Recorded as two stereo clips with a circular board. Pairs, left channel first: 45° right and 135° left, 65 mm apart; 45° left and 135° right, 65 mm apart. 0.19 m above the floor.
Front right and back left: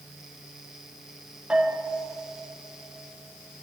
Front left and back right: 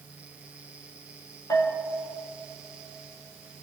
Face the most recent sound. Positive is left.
turn(degrees=65)